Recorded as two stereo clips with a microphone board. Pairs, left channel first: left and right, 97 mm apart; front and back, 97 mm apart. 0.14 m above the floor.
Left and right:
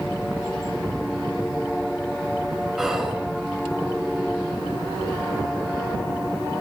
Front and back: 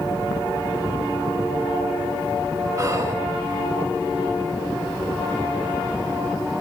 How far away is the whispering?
About 1.4 m.